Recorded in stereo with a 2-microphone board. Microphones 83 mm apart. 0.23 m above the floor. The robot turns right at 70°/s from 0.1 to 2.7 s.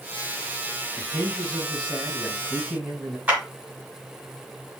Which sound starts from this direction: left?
A man speaking, at 1.0 s.